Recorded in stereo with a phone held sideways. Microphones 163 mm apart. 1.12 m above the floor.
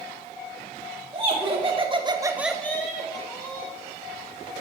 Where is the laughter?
35° right (ahead or behind), 1.7 m; by 3.7 s 25° left (ahead or behind), 1.8 m.